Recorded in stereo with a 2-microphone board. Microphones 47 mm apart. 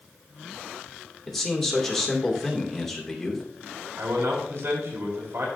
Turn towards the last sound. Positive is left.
turn(degrees=-75)  # may be behind; listen again after turning